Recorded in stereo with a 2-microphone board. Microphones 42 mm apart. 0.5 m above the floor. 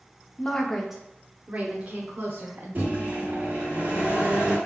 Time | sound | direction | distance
0.4 | a woman speaking | 25° left (ahead or behind) | 0.8 m
2.8 | a microwave | 50° right (ahead or behind) | 1.6 m